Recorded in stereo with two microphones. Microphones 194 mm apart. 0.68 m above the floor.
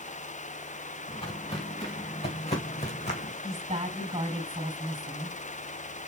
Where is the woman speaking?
30° right (ahead or behind), 3.5 m.